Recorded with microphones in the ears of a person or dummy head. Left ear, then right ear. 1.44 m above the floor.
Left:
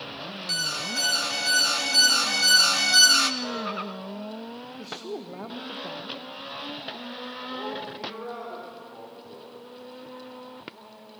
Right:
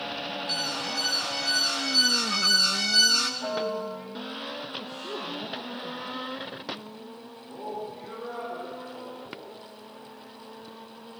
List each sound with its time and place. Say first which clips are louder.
0.5 s an alarm: left 3 dB; 30° left (ahead or behind), 0.6 m
3.4 s a piano: right 2 dB; 25° right (ahead or behind), 7.5 m
4.8 s a woman speaking: right 1 dB; 70° left (ahead or behind), 1.3 m
7.5 s a man speaking: even; 25° left (ahead or behind), 4.5 m